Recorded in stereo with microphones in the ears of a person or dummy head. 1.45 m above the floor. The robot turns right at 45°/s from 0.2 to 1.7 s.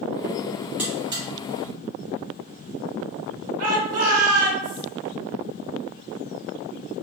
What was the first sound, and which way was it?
A buzzer, 10° right (ahead or behind).